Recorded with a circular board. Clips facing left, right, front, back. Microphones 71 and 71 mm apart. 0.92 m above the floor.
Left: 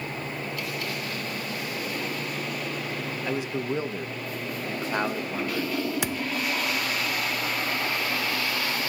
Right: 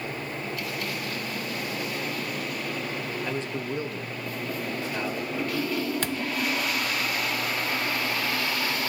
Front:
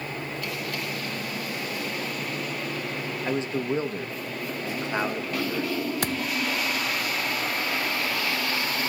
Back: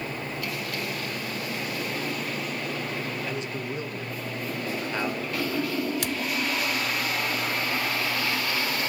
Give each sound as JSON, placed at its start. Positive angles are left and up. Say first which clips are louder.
{"t": 3.2, "sound": "a man speaking", "louder": "left 6 dB, front 5 dB", "azimuth_deg": 15, "distance_m": 1.0}
{"t": 6.0, "sound": "a thud", "louder": "even, front 1 dB", "azimuth_deg": 20, "distance_m": 0.6}